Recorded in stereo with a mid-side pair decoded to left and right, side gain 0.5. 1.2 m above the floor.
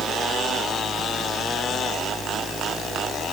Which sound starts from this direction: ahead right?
A fan, at 0.0 s.